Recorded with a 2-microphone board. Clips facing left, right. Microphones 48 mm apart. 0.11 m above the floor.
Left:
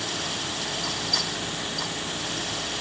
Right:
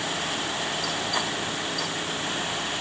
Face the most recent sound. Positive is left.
No sound to turn to.